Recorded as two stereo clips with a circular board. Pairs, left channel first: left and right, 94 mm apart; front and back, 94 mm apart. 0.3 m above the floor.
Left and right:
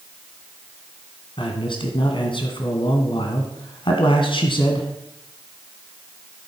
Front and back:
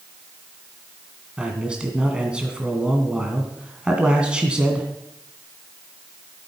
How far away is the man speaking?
About 2 m.